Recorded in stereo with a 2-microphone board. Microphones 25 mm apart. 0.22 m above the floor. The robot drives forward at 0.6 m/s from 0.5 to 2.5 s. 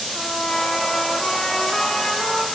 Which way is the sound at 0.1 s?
25° left (ahead or behind).